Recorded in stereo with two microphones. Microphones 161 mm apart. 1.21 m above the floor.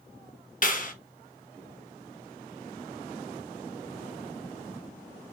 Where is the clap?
55° left (ahead or behind), 1.0 m.